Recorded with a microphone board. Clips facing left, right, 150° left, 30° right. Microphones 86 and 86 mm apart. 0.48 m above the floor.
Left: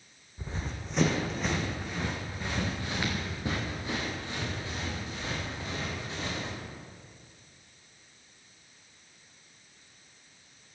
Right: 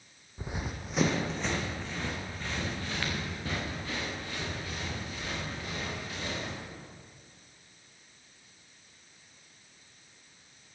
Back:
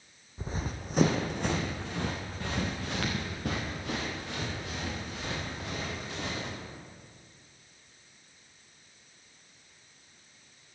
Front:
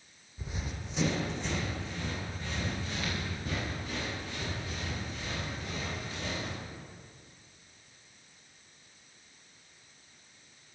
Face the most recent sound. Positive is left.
turn(degrees=155)